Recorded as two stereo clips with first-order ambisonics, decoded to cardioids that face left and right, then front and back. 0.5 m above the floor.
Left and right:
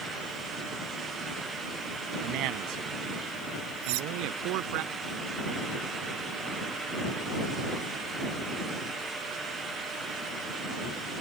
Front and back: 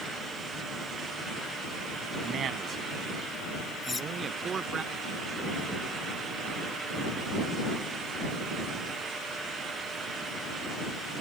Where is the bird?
No bird in this recording.